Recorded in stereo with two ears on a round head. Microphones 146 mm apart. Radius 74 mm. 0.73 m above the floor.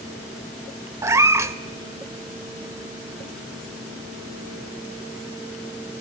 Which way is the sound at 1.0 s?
15° right (ahead or behind).